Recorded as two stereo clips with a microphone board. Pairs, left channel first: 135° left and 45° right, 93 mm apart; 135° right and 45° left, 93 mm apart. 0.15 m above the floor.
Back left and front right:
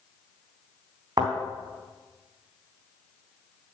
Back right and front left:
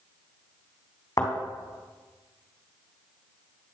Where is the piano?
I don't hear a piano.